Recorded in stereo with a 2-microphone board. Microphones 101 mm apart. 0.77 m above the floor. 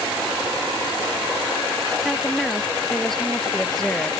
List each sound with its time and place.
2.0 s a woman speaking: centre (ahead or behind); by 4.1 s 5° left (ahead or behind)